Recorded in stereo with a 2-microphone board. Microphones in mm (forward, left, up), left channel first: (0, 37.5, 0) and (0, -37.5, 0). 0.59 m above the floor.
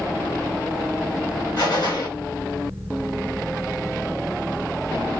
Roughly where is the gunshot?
Left.